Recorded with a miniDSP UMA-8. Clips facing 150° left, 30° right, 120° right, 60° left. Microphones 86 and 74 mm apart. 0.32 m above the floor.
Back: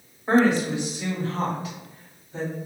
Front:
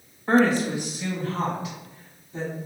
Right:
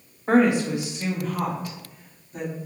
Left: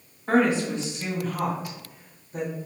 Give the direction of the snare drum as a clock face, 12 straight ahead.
No snare drum in this recording.